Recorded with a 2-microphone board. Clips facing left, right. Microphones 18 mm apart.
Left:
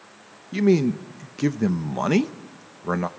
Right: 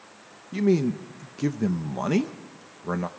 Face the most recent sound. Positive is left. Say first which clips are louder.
# left 3 dB
turn(degrees=20)  # may be behind; listen again after turning